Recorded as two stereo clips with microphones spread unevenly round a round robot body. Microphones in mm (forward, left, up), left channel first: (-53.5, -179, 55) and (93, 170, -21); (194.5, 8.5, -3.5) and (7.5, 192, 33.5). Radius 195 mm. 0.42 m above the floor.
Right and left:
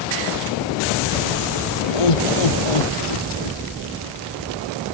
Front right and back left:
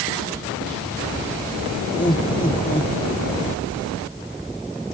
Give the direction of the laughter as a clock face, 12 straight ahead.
4 o'clock.